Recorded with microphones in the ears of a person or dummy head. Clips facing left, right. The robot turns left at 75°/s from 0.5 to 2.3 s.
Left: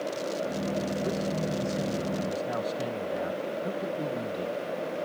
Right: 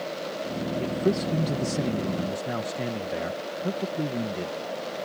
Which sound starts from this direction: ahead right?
A man speaking, at 0.8 s.